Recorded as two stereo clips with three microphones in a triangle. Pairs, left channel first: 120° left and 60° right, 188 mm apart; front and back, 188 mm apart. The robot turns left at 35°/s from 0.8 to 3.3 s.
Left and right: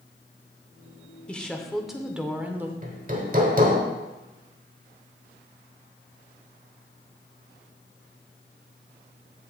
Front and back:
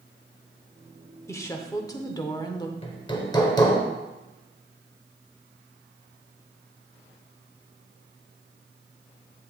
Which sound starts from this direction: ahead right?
Hammering, at 2.8 s.